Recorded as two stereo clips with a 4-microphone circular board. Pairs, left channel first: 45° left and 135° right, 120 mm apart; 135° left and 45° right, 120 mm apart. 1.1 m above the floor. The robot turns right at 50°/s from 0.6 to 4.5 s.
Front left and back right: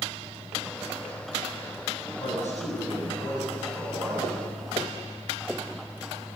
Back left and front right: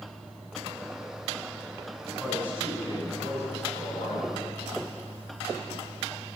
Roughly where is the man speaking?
Ahead left.